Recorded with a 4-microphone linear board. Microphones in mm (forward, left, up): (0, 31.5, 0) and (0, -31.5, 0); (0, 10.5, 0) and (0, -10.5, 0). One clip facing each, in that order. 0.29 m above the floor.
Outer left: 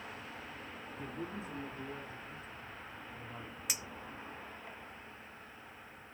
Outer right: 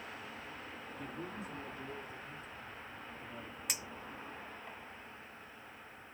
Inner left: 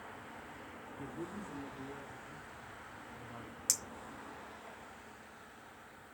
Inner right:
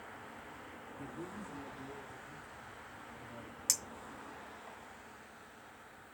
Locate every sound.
1.0 s a man speaking: 25° left (ahead or behind), 4.5 m; by 3.5 s 60° left (ahead or behind), 3 m
3.7 s a clink: centre (ahead or behind), 1.0 m